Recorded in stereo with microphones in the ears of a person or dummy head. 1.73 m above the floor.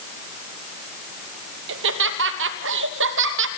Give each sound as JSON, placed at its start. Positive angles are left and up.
{"t": 1.7, "sound": "laughter", "side_deg": -65, "distance_m": 3.0}